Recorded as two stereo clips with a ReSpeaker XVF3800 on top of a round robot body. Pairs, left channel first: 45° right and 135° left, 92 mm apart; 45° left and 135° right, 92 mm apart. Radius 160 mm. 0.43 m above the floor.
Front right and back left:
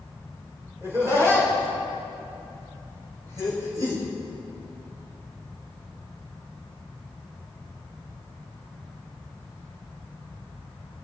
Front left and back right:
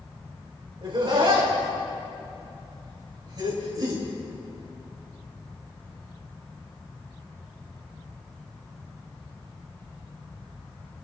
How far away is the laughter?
About 5 m.